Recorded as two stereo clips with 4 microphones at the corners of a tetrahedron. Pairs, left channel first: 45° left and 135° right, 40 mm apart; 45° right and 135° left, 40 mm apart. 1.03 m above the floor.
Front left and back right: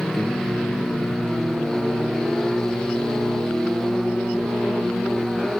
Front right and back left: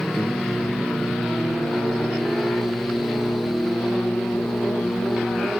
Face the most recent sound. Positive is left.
turn(degrees=-40)